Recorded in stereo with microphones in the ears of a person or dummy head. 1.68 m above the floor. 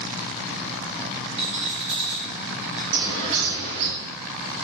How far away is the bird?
About 3 m.